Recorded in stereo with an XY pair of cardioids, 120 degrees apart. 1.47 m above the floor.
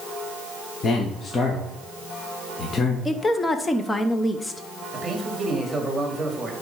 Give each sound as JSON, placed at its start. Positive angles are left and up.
{"t": 0.8, "sound": "a man speaking", "azimuth_deg": 35, "distance_m": 1.2}
{"t": 3.0, "sound": "a woman speaking", "azimuth_deg": 20, "distance_m": 0.9}
{"t": 4.9, "sound": "a man speaking", "azimuth_deg": -15, "distance_m": 2.5}